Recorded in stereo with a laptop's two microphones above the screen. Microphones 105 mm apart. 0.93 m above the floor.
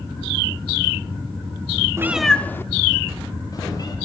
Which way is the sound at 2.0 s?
25° right (ahead or behind).